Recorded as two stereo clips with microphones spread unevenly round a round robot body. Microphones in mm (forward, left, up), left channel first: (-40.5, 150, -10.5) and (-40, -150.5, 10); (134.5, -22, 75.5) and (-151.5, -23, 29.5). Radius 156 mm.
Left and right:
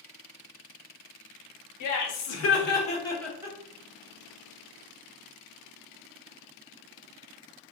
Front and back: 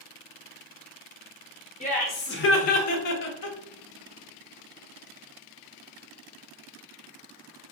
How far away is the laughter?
About 1.2 m.